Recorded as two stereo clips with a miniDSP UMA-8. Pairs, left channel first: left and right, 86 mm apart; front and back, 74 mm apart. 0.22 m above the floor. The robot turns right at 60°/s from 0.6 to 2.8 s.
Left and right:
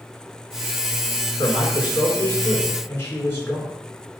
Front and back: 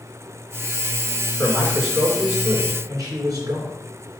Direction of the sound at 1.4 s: 65° left.